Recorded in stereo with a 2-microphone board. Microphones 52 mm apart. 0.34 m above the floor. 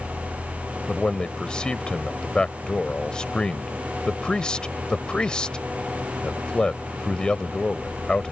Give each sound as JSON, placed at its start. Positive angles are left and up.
{"t": 0.9, "sound": "a man speaking", "side_deg": 15}